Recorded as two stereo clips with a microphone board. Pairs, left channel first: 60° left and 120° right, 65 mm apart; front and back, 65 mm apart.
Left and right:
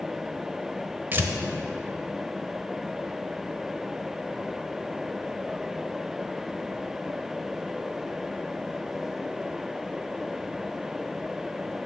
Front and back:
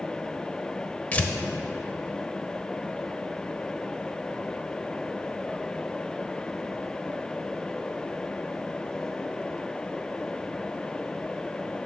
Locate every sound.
1.1 s tearing paper: 65° right, 0.6 m